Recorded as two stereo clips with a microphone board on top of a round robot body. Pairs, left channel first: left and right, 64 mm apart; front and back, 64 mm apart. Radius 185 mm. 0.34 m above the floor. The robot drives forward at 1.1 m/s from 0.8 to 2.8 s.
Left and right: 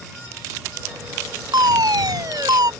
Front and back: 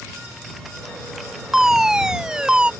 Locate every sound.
1.5 s a fire alarm: 95° right; by 2.7 s 100° right